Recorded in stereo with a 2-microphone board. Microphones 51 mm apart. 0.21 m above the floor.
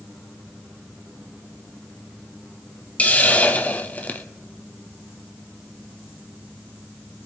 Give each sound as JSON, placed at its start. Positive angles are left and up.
{"t": 3.0, "sound": "a hiss", "side_deg": 30, "distance_m": 0.9}